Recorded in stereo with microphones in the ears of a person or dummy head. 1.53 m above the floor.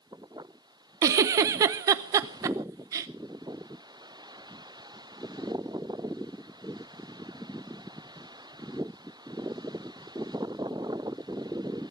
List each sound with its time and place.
1.0 s a giggle: 20° right (ahead or behind), 0.7 m